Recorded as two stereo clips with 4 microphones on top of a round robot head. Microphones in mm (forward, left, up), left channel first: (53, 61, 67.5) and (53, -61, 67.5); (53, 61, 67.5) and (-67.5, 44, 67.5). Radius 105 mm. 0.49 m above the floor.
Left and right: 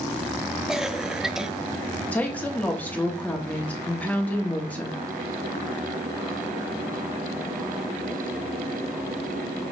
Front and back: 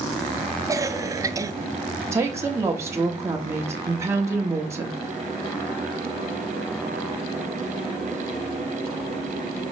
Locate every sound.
0.7 s a cough: 170° right, 0.7 m
2.1 s a woman speaking: 155° left, 1.1 m